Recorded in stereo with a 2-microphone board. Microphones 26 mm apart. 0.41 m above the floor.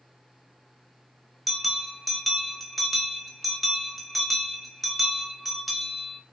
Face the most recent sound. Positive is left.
turn(degrees=5)  # may be behind; listen again after turning